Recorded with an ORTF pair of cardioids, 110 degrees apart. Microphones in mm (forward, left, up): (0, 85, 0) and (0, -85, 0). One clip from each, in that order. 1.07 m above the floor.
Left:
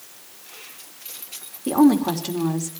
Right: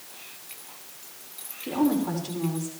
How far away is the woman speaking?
About 2.5 m.